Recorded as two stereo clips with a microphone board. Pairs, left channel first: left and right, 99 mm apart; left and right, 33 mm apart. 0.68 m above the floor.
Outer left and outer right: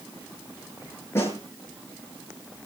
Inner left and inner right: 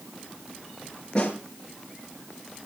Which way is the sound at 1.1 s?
25° left (ahead or behind).